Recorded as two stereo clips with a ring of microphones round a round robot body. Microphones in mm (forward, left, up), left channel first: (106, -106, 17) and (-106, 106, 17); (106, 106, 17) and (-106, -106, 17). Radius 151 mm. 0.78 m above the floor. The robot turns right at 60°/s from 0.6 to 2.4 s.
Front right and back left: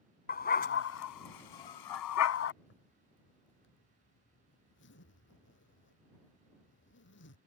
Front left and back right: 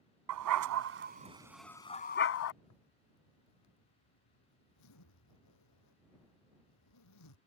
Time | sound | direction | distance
0.3 | a dog barking | 105° right | ?
2.6 | a zipper | 10° left | ?